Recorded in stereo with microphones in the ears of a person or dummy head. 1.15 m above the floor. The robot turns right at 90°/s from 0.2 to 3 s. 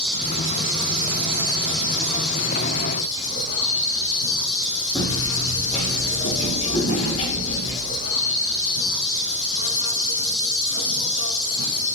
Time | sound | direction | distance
0.0 | an insect | 175° left | 4.5 m
5.0 | footsteps | 30° left (ahead or behind) | 4 m